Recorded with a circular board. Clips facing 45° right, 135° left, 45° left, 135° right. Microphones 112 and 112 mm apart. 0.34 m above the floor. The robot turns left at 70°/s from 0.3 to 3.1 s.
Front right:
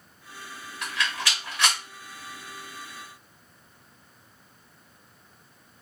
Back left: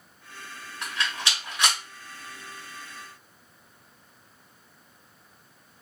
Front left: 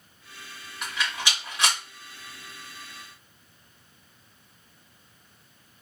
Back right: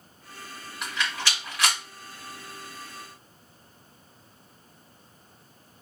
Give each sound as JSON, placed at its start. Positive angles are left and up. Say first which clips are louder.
{"t": 0.8, "sound": "a rattle", "louder": "front right 1 dB, even", "azimuth_deg": 130, "distance_m": 1.6}